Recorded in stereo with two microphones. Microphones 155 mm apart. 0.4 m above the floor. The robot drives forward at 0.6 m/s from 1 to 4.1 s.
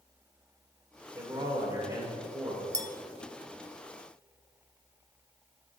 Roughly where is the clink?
Right.